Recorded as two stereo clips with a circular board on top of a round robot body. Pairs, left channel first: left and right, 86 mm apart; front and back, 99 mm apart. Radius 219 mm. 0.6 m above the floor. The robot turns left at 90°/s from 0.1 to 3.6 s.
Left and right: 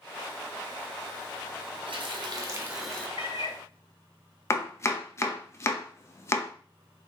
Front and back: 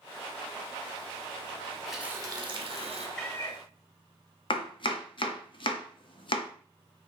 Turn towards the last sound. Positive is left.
turn(degrees=30)